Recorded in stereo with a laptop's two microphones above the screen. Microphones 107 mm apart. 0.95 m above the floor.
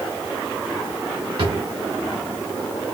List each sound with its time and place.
1.4 s a drawer: 55° right (ahead or behind), 1.3 m